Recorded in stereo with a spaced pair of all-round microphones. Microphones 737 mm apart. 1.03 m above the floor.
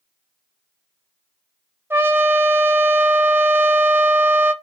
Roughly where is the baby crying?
No baby crying in this recording.